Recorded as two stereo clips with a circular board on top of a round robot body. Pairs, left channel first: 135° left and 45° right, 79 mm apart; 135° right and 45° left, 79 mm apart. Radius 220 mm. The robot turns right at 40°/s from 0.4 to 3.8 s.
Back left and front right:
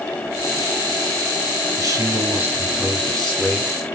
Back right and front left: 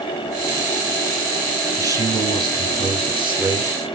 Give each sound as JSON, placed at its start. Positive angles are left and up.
{"t": 1.8, "sound": "a man speaking", "azimuth_deg": -5, "distance_m": 5.5}